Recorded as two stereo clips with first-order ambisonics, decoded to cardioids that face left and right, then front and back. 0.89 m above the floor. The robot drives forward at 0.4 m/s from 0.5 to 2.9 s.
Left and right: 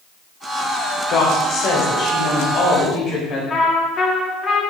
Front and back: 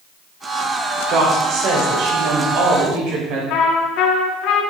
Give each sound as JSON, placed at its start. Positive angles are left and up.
{"t": 1.1, "sound": "a woman speaking", "azimuth_deg": 135, "distance_m": 2.5}
{"t": 3.5, "sound": "a trumpet", "azimuth_deg": 25, "distance_m": 1.7}